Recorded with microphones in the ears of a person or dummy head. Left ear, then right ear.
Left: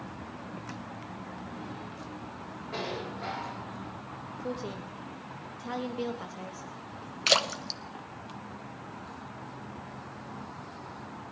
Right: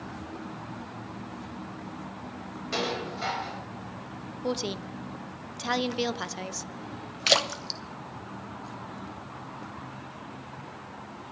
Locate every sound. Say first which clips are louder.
2.7 s dishes clattering: right 5 dB; 85° right, 4.5 m
4.4 s a woman speaking: right 7 dB; 45° right (ahead or behind), 0.6 m
7.3 s a splash: right 2 dB; centre (ahead or behind), 0.8 m